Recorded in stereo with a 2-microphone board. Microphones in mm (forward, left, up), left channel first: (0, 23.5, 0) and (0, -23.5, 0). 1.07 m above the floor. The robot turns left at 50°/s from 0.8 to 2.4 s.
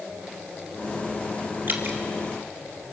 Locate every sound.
1.7 s dripping: 45° right (ahead or behind), 2 m; by 2.0 s 60° right (ahead or behind), 2 m